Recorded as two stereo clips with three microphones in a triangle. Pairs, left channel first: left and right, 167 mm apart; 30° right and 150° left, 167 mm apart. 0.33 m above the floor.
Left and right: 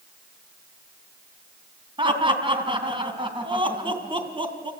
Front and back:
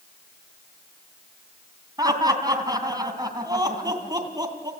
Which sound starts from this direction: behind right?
Laughter, at 2.0 s.